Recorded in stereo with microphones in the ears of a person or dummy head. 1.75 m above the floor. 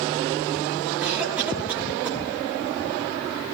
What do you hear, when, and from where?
1.0 s a cough: 10° right (ahead or behind), 5.5 m